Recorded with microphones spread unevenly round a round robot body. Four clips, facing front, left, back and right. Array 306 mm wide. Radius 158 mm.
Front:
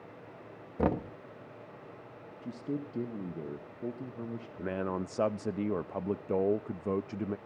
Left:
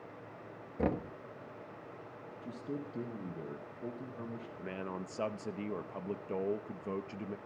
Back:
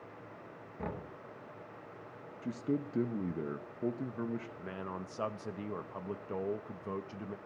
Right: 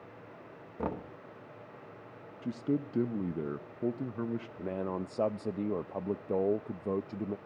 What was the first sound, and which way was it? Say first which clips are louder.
Knocking: left 3 dB, front 12 dB; 25° left.